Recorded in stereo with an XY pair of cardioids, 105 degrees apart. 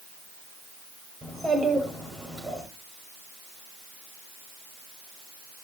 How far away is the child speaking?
About 6 m.